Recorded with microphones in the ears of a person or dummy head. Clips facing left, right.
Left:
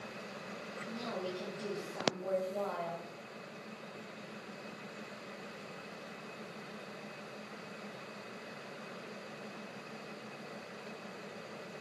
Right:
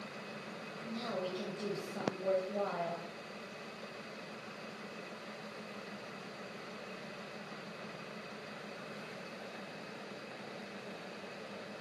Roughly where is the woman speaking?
Right.